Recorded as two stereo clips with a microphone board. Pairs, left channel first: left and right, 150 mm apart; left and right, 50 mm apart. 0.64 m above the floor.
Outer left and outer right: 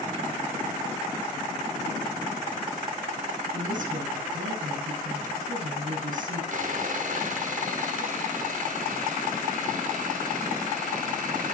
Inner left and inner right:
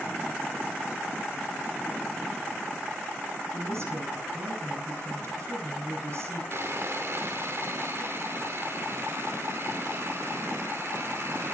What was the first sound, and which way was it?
A woman speaking, 65° right (ahead or behind).